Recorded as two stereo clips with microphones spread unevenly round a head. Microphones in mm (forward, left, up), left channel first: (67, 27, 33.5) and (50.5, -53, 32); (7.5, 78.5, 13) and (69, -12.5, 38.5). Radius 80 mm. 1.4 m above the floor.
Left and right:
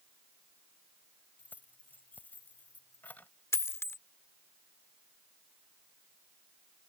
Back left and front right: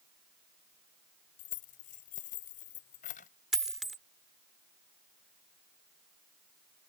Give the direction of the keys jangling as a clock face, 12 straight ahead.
7 o'clock.